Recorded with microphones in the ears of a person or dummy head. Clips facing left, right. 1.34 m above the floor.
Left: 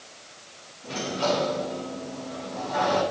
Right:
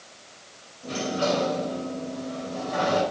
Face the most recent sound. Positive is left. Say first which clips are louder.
# right 1 dB
turn(degrees=-55)  # may be behind; listen again after turning